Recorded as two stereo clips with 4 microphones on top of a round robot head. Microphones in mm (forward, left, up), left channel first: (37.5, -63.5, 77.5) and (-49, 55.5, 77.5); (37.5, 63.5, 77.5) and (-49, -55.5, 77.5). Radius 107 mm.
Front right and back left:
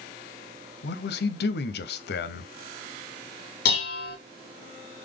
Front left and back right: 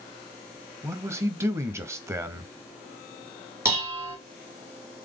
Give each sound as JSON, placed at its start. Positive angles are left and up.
{"t": 0.8, "sound": "a man speaking", "azimuth_deg": -50, "distance_m": 0.7}
{"t": 3.6, "sound": "dishes clattering", "azimuth_deg": -50, "distance_m": 0.9}